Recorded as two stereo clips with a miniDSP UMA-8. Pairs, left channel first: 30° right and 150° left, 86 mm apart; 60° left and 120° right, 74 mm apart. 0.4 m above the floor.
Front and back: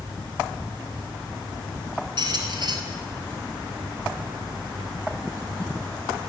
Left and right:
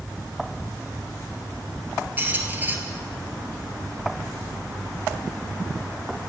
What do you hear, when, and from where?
2.2 s a squeak: 175° left, 1.1 m